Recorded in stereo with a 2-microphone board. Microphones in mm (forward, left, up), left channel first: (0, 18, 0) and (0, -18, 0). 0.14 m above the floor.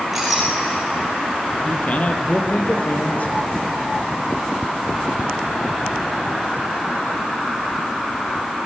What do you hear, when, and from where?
0.1 s a clink: 5° right (ahead or behind), 8 m
1.6 s a man speaking: 45° left (ahead or behind), 3 m